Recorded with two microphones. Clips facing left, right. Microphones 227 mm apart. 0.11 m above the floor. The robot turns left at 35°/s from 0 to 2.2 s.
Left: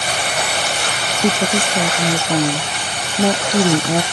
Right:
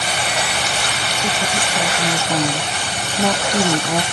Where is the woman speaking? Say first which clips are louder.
Left 8 dB; 60° left; by 4.0 s 25° left.